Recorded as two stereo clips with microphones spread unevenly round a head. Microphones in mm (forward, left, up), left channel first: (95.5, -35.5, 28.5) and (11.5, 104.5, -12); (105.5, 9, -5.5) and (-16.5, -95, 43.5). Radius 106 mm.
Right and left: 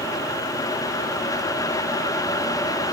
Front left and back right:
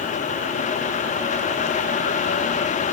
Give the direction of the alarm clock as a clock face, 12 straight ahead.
I don't hear an alarm clock.